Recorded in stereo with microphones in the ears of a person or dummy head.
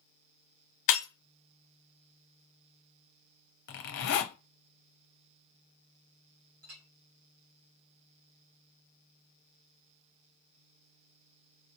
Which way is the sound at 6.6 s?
75° right (ahead or behind).